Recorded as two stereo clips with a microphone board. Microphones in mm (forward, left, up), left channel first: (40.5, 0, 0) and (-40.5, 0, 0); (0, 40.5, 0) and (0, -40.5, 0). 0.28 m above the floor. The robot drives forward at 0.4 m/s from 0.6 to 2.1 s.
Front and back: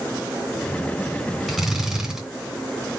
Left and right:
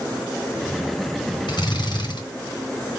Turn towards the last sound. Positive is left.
turn(degrees=95)